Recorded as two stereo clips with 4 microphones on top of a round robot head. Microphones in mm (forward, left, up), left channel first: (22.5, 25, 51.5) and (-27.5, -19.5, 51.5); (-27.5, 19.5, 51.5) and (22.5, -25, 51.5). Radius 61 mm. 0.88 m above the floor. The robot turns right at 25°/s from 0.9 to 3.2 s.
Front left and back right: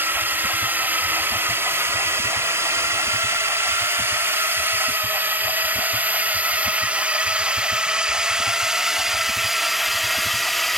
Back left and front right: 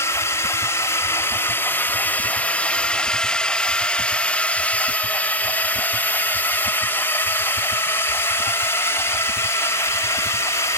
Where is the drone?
170° left; by 10.8 s 130° left.